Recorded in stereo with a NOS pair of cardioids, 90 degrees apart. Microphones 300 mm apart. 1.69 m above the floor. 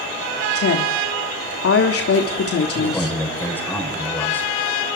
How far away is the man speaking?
About 8.5 m.